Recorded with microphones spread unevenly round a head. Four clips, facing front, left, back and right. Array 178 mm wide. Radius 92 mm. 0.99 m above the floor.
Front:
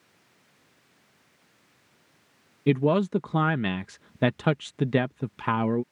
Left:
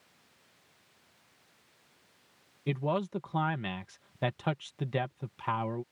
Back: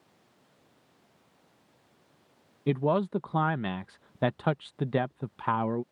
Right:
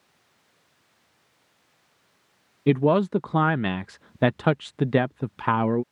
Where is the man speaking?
65° right.